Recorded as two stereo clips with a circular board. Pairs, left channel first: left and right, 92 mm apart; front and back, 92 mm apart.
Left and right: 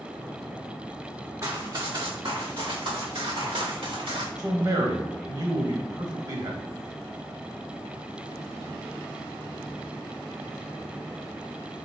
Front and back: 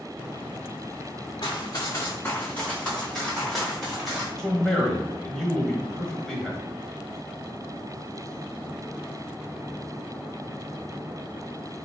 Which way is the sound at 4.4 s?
85° right.